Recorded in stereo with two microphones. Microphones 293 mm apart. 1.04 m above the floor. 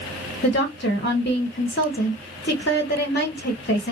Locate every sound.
0.4 s a woman speaking: 40° left (ahead or behind), 0.8 m